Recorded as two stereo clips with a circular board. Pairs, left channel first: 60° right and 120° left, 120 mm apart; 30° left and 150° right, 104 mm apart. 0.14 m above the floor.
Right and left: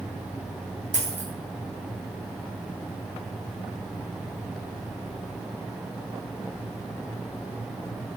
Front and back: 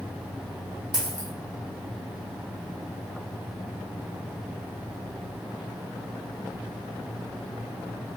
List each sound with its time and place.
0.9 s a dropped coin: 130° left, 3 m